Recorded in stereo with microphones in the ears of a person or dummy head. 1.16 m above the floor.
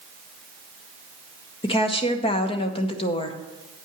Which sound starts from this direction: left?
A woman speaking, at 1.6 s.